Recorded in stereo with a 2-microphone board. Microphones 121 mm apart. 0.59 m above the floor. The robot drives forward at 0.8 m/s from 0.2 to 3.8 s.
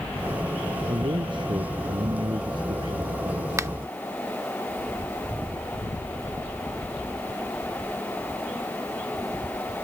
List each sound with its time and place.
0.9 s a man speaking: 45° right (ahead or behind); by 3.5 s 35° right (ahead or behind)
3.6 s a finger snap: 25° right (ahead or behind)